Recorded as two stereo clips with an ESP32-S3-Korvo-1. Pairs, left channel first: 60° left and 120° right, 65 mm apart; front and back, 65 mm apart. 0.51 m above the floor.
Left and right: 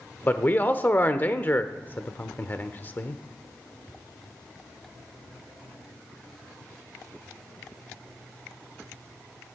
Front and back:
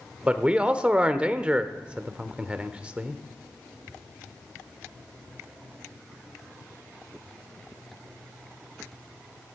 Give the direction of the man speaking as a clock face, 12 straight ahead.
8 o'clock.